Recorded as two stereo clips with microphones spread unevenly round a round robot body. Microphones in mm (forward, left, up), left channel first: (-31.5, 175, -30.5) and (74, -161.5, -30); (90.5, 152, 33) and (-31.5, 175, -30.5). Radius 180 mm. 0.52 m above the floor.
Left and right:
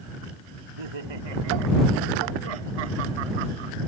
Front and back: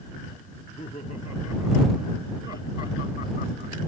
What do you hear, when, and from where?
0.5 s laughter: 75° right; by 3.8 s 60° right